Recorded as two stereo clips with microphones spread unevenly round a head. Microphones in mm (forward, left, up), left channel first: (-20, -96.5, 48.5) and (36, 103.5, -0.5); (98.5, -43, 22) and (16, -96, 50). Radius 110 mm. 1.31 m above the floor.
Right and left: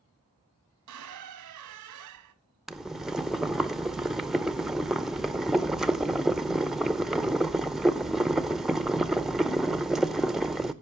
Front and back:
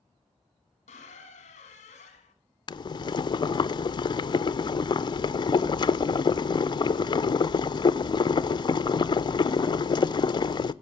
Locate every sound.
0.9 s a squeak: 75° left, 1.1 m
2.7 s boiling: 20° right, 0.5 m